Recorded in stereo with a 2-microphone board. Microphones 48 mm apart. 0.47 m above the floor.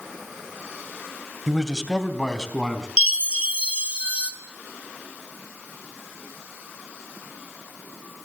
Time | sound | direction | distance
1.5 | a man speaking | centre (ahead or behind) | 2.0 m
3.0 | a chime | 25° right (ahead or behind) | 2.5 m